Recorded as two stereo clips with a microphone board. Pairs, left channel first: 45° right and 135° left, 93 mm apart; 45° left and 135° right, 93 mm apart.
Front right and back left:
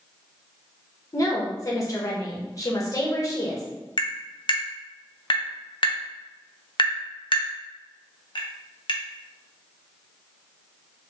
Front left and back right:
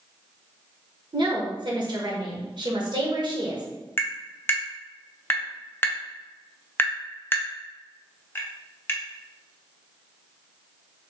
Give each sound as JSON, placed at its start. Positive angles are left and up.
{"t": 1.1, "sound": "a woman speaking", "azimuth_deg": -100, "distance_m": 1.2}
{"t": 4.0, "sound": "tapping", "azimuth_deg": -20, "distance_m": 0.7}